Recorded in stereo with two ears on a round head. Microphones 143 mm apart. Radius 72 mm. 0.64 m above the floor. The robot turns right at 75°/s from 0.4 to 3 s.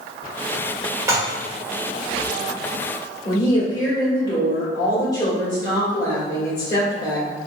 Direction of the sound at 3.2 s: 25° left (ahead or behind).